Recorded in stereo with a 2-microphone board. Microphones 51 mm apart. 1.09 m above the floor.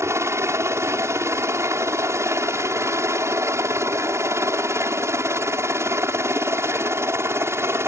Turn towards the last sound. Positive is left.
turn(degrees=-55)  # may be behind; listen again after turning